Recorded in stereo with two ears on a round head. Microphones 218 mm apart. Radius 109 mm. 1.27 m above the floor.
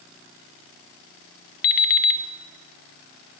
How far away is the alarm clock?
About 1.0 m.